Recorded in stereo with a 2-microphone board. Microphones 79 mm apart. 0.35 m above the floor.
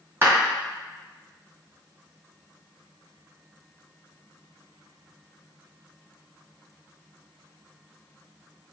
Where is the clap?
35° right (ahead or behind), 1.9 m.